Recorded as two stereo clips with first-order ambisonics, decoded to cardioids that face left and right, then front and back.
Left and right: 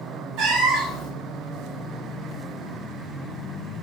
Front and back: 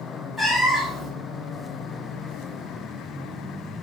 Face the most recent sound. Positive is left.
turn(degrees=-90)